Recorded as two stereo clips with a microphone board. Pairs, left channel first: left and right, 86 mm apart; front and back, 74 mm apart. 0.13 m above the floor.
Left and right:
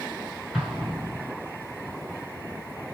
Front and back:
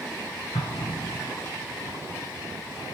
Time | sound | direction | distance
0.5 | an explosion | 5° right | 1.1 m